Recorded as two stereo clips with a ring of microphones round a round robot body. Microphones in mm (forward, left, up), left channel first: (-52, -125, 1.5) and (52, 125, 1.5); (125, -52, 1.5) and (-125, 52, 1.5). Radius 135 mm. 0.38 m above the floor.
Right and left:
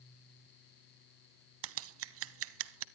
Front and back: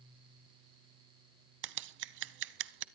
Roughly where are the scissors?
Left.